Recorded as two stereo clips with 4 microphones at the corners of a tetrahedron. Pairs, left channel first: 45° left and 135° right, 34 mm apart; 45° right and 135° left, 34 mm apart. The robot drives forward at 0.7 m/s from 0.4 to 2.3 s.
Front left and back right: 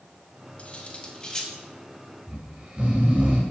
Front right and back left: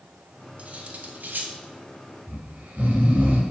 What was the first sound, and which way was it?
Cutlery clinking, 95° left.